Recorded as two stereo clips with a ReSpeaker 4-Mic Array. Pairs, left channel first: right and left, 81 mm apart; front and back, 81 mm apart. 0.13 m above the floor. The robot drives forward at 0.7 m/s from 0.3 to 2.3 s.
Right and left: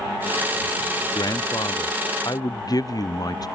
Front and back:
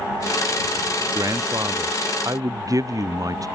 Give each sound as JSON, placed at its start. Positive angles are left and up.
{"t": 1.1, "sound": "a man speaking", "azimuth_deg": -130}